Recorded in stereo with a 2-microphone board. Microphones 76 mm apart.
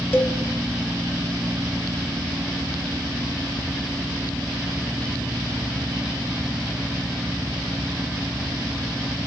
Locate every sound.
0.1 s a cowbell: 25° left (ahead or behind), 0.6 m